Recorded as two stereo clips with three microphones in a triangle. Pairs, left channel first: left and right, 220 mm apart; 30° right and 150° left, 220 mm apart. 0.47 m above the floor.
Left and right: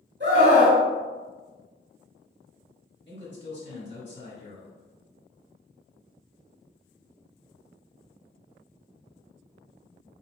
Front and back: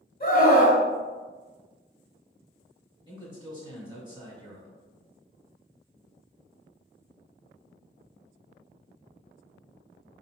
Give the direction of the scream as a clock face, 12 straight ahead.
2 o'clock.